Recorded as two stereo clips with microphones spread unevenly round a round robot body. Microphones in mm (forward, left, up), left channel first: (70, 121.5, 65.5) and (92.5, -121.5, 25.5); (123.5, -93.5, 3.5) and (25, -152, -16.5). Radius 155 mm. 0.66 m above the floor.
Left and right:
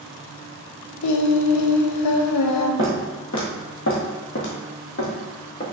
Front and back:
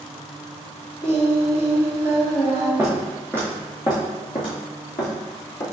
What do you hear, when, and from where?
1.0 s singing: 100° left, 0.5 m
2.8 s footsteps: 125° left, 1.1 m; by 5.6 s 50° left, 1.9 m